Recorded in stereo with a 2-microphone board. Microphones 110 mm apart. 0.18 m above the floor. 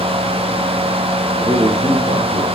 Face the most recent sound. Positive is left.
turn(degrees=-60)  # may be behind; listen again after turning